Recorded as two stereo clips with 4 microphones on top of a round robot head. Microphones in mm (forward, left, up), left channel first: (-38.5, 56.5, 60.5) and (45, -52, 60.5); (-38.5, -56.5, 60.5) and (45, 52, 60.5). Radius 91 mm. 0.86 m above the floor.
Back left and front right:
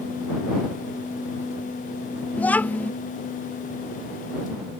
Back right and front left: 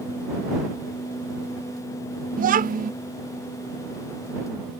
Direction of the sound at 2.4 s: 50° left.